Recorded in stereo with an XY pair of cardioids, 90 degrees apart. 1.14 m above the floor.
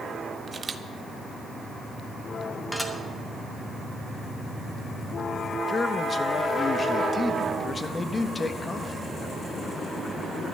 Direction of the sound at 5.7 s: 35° left.